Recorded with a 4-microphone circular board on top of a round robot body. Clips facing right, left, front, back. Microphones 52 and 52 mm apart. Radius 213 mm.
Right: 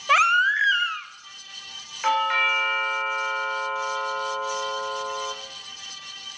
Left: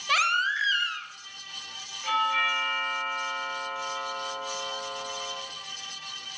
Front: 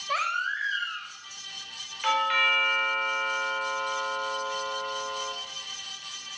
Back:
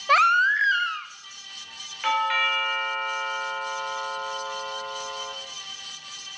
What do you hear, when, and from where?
0.1 s a baby crying: 150° right, 0.7 m
2.0 s a doorbell: 105° right, 3 m